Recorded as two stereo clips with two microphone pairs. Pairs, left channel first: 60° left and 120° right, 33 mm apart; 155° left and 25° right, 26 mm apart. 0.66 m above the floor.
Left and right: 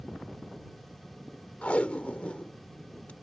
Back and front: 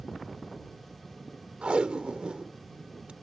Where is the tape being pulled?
20° left.